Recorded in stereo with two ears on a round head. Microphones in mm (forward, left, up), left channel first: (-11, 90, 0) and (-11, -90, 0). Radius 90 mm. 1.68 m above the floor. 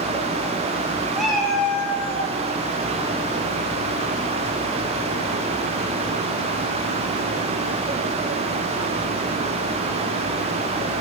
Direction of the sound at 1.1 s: Centre (ahead or behind).